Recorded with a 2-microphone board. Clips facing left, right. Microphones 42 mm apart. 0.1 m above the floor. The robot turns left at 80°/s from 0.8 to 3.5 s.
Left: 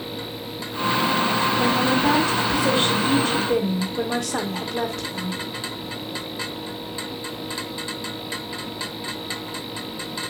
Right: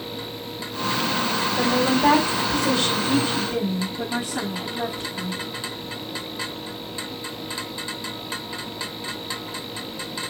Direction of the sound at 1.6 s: 105° right.